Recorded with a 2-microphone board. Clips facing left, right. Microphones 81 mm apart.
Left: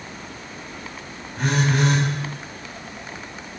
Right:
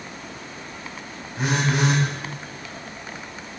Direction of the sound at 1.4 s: 10° right (ahead or behind).